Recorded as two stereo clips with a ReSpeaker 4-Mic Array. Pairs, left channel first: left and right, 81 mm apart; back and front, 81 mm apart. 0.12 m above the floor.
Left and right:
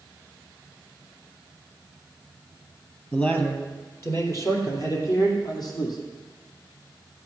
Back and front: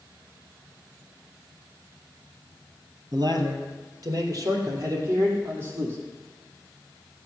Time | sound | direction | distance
3.1 | a man speaking | 20° left | 2.5 m